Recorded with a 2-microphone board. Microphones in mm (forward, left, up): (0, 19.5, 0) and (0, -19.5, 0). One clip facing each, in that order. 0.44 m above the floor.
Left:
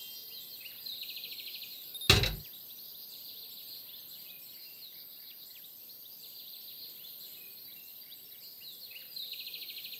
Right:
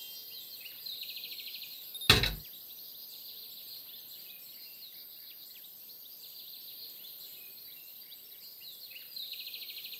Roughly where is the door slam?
Centre.